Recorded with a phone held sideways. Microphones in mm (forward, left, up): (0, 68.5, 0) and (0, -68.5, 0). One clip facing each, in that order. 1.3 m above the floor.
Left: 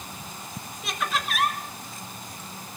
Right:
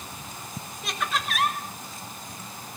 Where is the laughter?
Centre (ahead or behind), 5 m.